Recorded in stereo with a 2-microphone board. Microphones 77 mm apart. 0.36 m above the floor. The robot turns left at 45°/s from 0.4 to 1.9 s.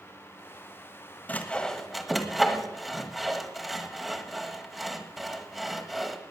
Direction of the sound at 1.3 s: 20° left (ahead or behind).